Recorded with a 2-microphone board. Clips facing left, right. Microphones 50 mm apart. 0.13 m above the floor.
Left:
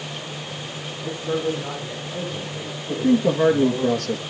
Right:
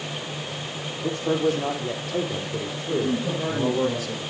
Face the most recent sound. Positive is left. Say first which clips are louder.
# left 6 dB
turn(degrees=60)  # may be behind; listen again after turning